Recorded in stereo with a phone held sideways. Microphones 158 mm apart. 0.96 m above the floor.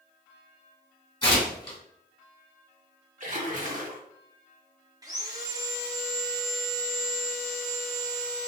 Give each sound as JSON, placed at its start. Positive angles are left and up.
{"t": 1.2, "sound": "tearing paper", "side_deg": 30, "distance_m": 1.7}
{"t": 3.2, "sound": "a splash", "side_deg": -55, "distance_m": 0.9}
{"t": 5.0, "sound": "sawing", "side_deg": -25, "distance_m": 0.6}